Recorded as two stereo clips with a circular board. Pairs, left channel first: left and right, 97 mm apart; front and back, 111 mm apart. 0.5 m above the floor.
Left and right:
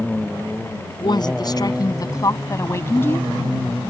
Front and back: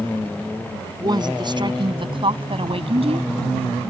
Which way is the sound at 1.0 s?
130° left.